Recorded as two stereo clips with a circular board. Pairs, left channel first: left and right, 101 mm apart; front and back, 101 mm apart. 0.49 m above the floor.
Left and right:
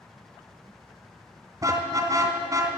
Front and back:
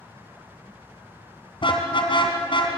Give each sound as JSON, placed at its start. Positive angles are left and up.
{"t": 1.6, "sound": "a car horn", "azimuth_deg": -35, "distance_m": 2.5}